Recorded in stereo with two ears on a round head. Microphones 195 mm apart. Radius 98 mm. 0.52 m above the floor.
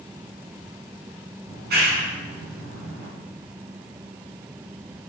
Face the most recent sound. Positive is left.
turn(degrees=-50)  # may be behind; listen again after turning